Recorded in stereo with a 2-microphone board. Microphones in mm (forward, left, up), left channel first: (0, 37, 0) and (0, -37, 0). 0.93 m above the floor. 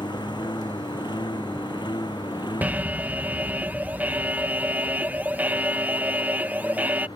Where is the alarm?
25° right (ahead or behind).